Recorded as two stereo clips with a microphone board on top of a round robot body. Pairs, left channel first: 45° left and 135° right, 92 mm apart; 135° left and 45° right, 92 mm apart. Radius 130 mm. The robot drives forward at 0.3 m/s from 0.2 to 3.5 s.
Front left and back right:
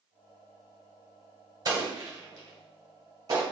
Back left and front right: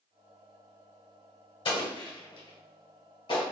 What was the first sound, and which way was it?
An explosion, 175° left.